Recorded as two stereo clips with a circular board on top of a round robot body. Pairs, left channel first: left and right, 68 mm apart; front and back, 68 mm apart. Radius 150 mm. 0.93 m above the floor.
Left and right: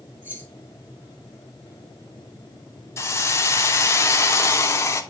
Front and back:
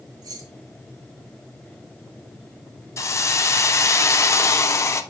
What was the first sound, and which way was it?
Keys jangling, 155° right.